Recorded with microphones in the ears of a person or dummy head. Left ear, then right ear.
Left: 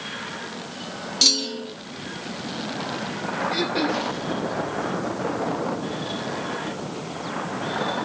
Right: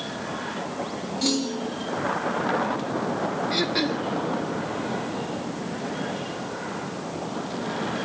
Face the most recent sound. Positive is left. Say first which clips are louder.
# left 1 dB
turn(degrees=-25)  # may be behind; listen again after turning